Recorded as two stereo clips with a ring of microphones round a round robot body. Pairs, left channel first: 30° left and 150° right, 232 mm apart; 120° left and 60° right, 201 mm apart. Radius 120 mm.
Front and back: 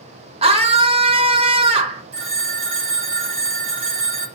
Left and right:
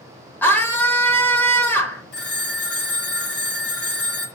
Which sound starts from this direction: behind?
A scream, at 0.4 s.